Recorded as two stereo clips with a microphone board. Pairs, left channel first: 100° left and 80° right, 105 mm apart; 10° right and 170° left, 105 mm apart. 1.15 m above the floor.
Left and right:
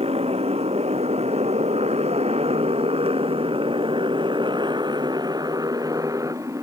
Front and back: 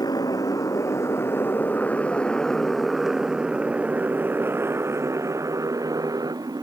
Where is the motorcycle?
65° right; by 6.6 s 140° right.